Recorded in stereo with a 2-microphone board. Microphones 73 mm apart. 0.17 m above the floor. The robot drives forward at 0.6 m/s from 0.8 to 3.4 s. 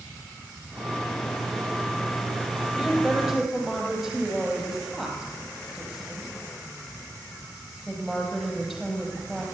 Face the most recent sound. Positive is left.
turn(degrees=-5)  # may be behind; listen again after turning